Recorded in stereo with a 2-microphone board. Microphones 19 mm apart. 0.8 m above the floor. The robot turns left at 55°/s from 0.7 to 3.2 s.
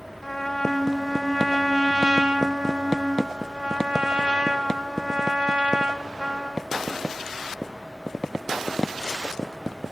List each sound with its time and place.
0.2 s a trumpet: 25° left, 2.5 m; by 6.7 s 110° right, 2.5 m